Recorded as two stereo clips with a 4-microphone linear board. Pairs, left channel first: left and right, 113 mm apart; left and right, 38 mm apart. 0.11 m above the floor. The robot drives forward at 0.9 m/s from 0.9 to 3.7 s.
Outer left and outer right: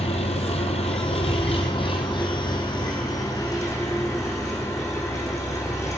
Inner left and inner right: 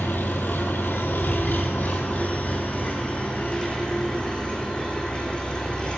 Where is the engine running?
65° left (ahead or behind), 1.8 m; by 6.0 s 30° left (ahead or behind), 3.5 m.